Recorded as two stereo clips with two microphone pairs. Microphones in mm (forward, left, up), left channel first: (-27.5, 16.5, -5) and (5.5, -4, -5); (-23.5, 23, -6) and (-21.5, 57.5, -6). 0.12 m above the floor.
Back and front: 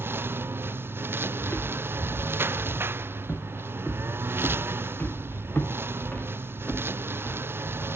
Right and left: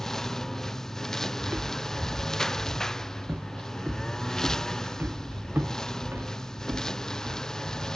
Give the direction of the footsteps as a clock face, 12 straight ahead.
8 o'clock.